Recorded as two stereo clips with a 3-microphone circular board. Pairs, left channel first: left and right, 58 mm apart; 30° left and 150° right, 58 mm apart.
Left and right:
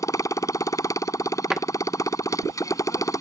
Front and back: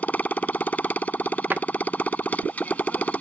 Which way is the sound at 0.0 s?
90° left.